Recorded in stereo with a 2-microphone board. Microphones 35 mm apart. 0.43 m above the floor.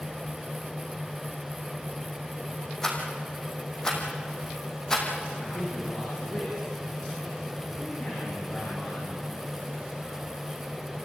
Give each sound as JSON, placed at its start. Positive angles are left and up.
{"t": 2.8, "sound": "a rattle", "side_deg": 10, "distance_m": 4.5}
{"t": 5.4, "sound": "a man speaking", "side_deg": 30, "distance_m": 6.5}